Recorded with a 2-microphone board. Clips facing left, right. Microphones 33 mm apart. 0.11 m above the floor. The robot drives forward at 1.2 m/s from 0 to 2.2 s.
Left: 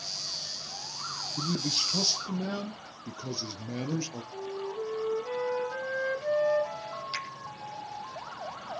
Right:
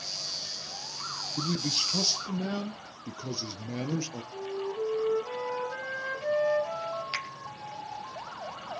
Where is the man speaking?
35° right (ahead or behind), 1.4 m; by 4.2 s 20° right (ahead or behind), 2 m.